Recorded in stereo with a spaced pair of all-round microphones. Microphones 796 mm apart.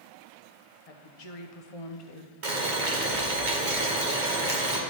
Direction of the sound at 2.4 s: 85° right.